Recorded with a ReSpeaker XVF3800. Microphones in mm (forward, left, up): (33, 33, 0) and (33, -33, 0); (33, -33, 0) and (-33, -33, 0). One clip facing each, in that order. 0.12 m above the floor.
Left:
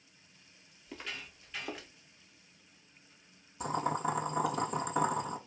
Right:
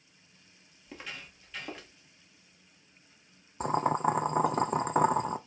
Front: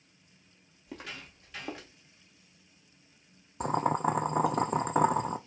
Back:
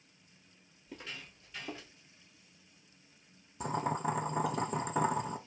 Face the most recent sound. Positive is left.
turn(degrees=-40)